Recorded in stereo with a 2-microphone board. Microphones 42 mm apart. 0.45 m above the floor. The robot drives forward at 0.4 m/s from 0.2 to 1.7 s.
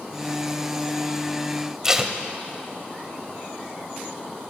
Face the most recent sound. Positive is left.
turn(degrees=-15)  # may be behind; listen again after turning